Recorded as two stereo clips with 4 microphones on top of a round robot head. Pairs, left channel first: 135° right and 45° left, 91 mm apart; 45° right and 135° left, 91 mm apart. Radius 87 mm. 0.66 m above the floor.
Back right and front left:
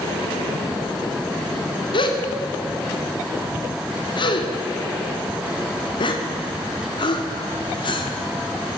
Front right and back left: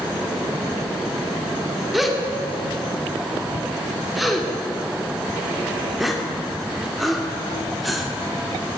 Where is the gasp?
135° right, 2.5 m.